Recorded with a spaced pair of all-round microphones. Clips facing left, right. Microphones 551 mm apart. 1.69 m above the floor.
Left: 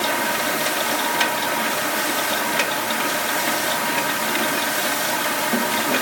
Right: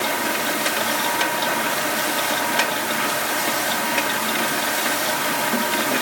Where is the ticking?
No ticking in this recording.